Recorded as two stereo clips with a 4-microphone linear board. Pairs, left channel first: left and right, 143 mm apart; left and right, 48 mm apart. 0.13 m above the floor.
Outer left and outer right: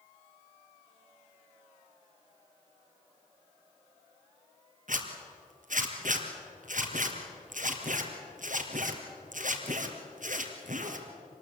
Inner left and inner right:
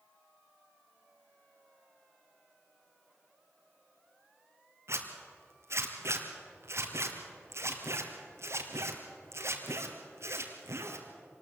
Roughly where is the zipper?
Right.